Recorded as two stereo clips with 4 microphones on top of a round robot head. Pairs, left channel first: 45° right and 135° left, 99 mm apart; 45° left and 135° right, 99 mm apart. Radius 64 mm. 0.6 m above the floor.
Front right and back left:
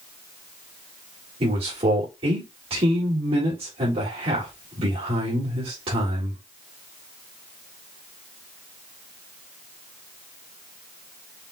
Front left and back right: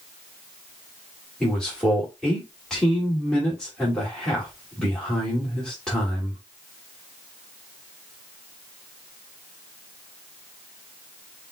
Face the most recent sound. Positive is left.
turn(degrees=130)